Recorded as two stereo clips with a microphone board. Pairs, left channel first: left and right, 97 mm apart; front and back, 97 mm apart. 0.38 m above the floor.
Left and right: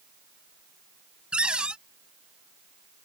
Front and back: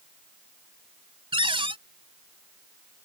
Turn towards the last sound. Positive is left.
turn(degrees=-170)